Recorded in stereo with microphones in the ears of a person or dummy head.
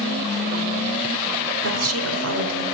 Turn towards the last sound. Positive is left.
turn(degrees=-85)